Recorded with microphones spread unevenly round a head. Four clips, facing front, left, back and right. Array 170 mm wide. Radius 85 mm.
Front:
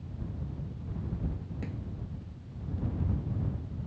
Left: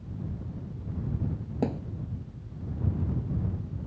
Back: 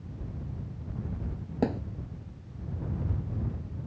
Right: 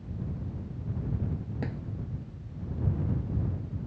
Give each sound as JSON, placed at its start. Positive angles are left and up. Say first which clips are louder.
{"t": 1.6, "sound": "a thud", "louder": "left 10 dB, back 15 dB", "azimuth_deg": 150}